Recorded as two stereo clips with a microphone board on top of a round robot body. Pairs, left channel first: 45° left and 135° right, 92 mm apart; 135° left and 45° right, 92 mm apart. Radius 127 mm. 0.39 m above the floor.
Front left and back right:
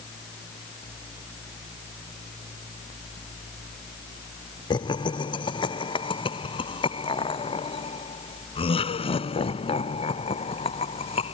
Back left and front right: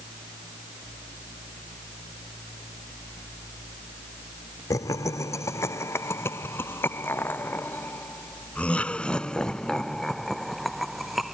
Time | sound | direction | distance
4.7 | laughter | 80° left | ?